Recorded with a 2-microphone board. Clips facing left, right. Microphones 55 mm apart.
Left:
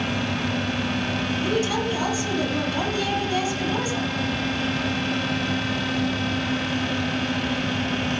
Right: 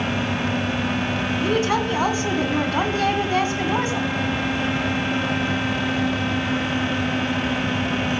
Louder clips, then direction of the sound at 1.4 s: Right 4 dB; 50° right (ahead or behind).